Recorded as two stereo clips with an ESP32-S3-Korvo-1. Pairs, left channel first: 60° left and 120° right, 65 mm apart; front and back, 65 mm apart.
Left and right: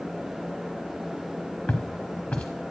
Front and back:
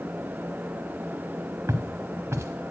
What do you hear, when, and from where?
1.7 s footsteps: 130° left, 1.0 m